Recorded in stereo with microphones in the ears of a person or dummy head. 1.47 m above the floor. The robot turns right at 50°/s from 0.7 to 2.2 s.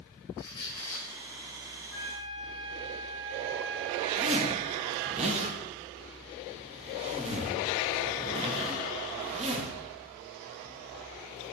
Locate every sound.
0.4 s a squeak: 25° left (ahead or behind), 5 m; by 1.1 s 5° left (ahead or behind), 5 m
1.9 s a flute: 80° right, 5 m; by 5.2 s 65° right (ahead or behind), 5 m
4.2 s a zipper: 40° right (ahead or behind), 1.7 m